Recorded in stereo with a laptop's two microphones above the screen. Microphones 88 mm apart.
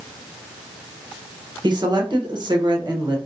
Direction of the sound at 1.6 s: 60° right (ahead or behind).